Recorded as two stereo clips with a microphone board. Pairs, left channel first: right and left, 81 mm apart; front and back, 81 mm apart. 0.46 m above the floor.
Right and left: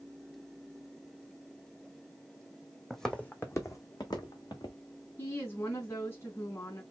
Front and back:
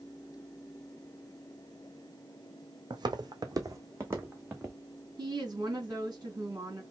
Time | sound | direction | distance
2.9 | footsteps | 175° right | 1.0 m
5.2 | a woman speaking | 140° right | 3 m